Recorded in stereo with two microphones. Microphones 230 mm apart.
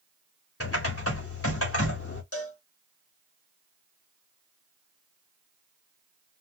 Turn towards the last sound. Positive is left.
turn(degrees=80)